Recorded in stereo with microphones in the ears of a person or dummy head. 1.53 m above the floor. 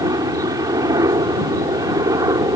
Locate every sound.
0.0 s a helicopter: 20° right (ahead or behind)